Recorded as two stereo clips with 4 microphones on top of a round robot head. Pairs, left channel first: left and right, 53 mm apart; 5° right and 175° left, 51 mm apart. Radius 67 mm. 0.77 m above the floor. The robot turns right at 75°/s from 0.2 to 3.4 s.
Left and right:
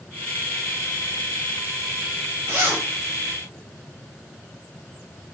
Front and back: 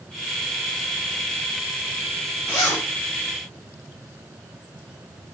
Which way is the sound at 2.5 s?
55° right.